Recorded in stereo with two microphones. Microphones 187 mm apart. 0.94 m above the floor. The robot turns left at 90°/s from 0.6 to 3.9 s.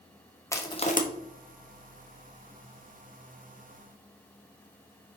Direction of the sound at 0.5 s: 15° left (ahead or behind).